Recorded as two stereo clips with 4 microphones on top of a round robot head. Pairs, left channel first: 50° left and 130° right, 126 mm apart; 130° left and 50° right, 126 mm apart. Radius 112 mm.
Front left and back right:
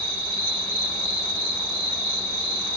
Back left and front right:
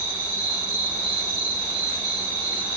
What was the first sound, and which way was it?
An insect, 25° left.